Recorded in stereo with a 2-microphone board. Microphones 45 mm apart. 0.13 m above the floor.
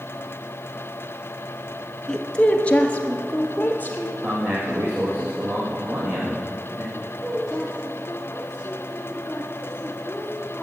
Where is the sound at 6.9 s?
15° left (ahead or behind), 3 m.